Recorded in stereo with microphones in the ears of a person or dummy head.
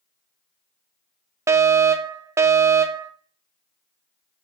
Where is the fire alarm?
10° right (ahead or behind), 0.6 m.